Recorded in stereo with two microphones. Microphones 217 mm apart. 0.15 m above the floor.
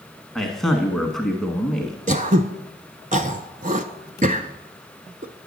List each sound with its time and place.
0.3 s a man speaking: centre (ahead or behind), 1.1 m
2.1 s throat clearing: 35° right (ahead or behind), 0.7 m